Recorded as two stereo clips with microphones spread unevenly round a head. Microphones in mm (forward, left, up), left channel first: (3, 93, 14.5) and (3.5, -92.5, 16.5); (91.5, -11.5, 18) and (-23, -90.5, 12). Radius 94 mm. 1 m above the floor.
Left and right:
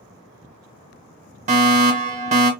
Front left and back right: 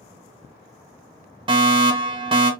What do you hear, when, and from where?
1.5 s a fire alarm: 120° right, 1.5 m